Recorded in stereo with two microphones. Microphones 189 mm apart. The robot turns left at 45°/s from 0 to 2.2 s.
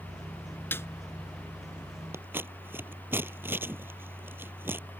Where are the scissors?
15° right (ahead or behind); by 4.8 s 10° right (ahead or behind).